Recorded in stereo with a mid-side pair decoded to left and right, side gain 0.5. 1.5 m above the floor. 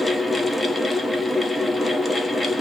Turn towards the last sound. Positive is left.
turn(degrees=15)